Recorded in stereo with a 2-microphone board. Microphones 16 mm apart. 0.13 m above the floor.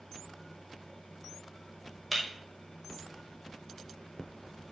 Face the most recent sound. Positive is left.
turn(degrees=5)  # may be behind; listen again after turning